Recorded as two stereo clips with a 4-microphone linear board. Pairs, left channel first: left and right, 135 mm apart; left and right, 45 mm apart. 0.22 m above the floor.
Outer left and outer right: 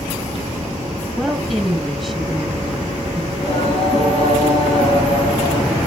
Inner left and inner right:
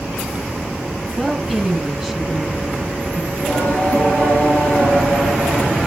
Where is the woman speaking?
Centre (ahead or behind), 1.4 m.